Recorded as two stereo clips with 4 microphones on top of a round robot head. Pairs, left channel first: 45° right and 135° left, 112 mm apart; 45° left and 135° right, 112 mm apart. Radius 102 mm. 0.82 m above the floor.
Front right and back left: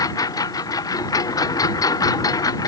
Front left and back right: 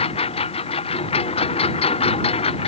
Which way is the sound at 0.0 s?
10° left.